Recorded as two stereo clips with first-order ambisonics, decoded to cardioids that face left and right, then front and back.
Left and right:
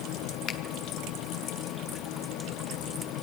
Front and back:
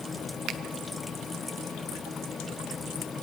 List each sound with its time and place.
0.5 s a finger snap: 140° left, 0.7 m